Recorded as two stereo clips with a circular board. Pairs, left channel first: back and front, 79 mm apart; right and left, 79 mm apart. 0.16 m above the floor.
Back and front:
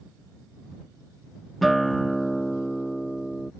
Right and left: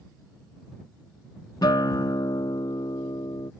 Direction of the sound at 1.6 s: 90° right.